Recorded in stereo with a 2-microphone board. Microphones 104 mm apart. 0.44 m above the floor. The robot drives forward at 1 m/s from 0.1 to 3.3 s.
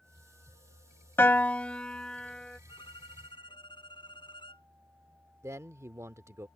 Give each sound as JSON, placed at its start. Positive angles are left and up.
{"t": 1.2, "sound": "a piano", "side_deg": 25}
{"t": 2.7, "sound": "a violin", "side_deg": 45}
{"t": 5.4, "sound": "a man speaking", "side_deg": -30}